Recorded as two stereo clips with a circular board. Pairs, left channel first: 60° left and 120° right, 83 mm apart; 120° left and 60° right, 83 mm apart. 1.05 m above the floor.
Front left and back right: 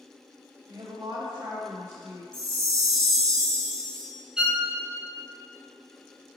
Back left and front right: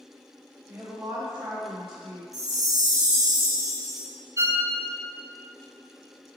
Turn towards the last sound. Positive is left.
turn(degrees=-45)